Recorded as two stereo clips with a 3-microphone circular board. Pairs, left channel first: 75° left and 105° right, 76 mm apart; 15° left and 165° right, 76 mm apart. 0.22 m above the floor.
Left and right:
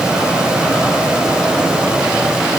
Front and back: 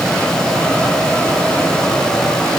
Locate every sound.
Only background noise.